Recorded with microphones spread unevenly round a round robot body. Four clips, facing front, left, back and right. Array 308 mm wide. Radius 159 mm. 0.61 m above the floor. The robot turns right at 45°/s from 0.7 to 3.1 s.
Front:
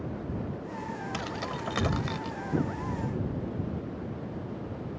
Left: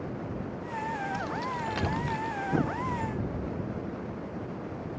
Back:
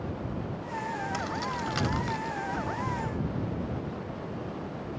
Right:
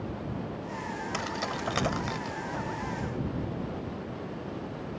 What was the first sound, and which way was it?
Keys jangling, 70° right.